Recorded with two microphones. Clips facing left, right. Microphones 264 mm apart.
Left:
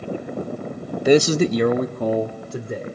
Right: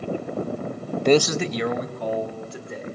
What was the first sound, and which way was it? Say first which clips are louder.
A man speaking: left 3 dB; 5° left (ahead or behind).